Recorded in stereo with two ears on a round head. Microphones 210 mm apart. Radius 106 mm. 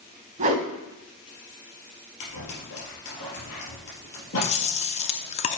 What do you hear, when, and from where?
0.4 s a whoosh: 35° right (ahead or behind), 2 m
2.2 s scissors: 70° left (ahead or behind), 3.5 m
4.4 s chewing: 30° left (ahead or behind), 0.5 m